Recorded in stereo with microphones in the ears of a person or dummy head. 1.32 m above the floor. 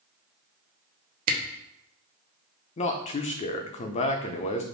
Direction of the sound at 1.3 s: 50° right (ahead or behind).